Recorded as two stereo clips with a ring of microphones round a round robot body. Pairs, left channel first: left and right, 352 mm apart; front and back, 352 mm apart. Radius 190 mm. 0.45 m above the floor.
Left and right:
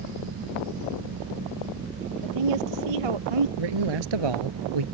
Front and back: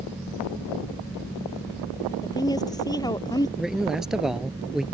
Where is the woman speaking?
80° right.